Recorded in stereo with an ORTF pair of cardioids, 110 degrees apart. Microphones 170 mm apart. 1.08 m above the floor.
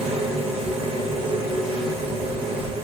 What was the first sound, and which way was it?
A machine running, 35° right.